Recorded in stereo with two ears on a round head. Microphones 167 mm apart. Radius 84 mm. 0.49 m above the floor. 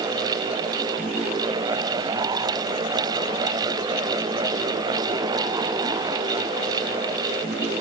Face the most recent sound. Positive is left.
No sound to turn to.